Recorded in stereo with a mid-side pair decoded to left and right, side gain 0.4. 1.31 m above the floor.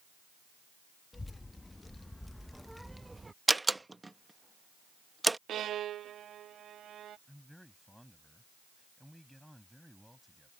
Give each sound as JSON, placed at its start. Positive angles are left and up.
{"t": 1.1, "sound": "a child speaking", "azimuth_deg": 25}
{"t": 3.5, "sound": "a door slam", "azimuth_deg": -20}
{"t": 5.5, "sound": "a violin", "azimuth_deg": -70}
{"t": 7.3, "sound": "a man speaking", "azimuth_deg": 0}